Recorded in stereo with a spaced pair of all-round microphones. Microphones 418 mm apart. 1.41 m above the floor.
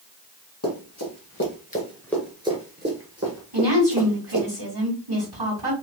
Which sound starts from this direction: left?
Running footsteps, at 0.6 s.